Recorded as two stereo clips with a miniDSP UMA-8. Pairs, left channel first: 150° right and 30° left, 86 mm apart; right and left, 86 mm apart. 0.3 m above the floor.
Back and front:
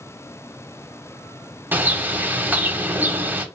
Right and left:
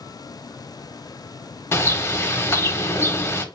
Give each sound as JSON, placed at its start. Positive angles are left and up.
{"t": 1.7, "sound": "a bird", "azimuth_deg": -35, "distance_m": 0.6}